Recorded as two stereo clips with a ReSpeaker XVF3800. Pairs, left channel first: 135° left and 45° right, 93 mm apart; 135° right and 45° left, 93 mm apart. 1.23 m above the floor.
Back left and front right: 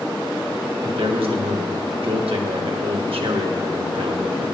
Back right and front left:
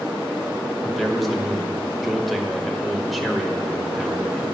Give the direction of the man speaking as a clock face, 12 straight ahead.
1 o'clock.